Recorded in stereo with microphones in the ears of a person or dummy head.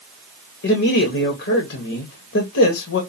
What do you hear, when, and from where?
0.6 s a man speaking: 50° left (ahead or behind), 1.1 m